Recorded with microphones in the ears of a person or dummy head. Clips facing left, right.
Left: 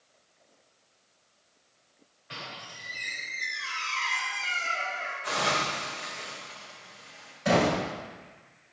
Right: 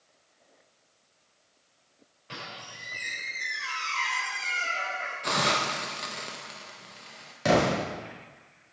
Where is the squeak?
40° right (ahead or behind), 3 m.